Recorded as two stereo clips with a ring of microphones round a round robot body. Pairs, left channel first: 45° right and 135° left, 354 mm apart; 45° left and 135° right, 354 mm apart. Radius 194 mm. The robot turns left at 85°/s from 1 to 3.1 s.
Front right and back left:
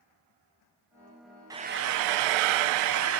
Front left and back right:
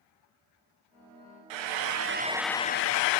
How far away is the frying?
About 0.6 m.